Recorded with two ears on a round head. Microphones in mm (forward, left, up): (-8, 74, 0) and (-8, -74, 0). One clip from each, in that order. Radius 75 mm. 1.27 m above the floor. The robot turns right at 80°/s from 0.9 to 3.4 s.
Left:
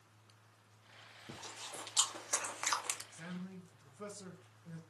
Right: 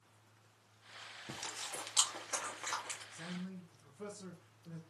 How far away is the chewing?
About 0.6 m.